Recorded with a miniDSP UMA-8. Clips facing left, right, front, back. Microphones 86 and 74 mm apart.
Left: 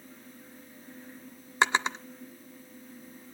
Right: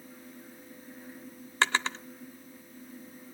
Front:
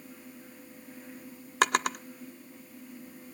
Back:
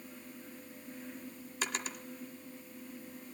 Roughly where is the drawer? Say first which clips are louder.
Left 2 dB, front 13 dB; ahead.